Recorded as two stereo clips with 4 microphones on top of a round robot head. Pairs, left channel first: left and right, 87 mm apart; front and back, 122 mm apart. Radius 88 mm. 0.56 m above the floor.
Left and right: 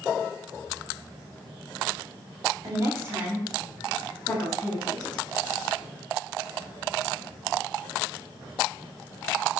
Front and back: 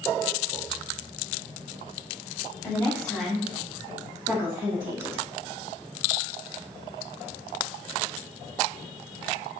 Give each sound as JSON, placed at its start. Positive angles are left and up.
{"t": 2.6, "sound": "a woman speaking", "azimuth_deg": -70, "distance_m": 1.8}